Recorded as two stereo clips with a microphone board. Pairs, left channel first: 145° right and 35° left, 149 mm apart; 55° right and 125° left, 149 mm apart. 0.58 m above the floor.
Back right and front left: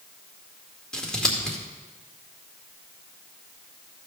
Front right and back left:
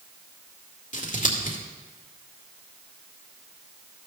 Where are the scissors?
60° right, 2 m.